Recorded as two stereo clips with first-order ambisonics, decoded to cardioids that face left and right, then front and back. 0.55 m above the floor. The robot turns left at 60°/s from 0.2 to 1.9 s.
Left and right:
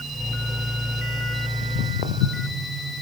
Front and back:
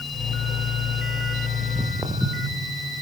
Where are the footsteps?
110° left, 2 m; by 2.6 s 90° left, 2 m.